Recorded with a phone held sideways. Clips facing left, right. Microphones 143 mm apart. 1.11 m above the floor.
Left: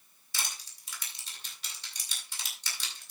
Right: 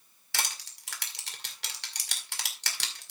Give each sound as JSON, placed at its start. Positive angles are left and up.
{"t": 0.3, "sound": "crushing", "side_deg": -70, "distance_m": 2.0}